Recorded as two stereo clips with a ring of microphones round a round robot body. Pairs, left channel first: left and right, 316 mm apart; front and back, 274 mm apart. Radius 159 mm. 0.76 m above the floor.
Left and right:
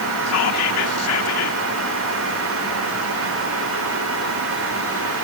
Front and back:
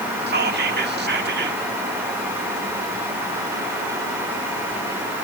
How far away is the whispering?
About 1.9 m.